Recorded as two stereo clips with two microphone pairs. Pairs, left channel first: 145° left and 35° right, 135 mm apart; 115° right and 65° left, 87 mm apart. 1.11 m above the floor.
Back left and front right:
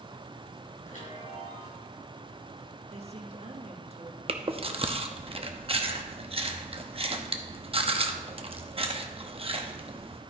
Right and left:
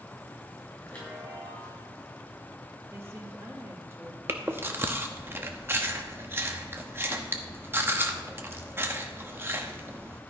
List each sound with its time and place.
0.8 s a chime: 165° left, 5 m
2.9 s a woman speaking: 5° left, 1.5 m
4.3 s chewing: 5° left, 0.7 m